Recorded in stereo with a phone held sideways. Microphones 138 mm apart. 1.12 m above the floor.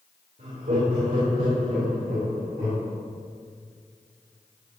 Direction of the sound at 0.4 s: 85° right.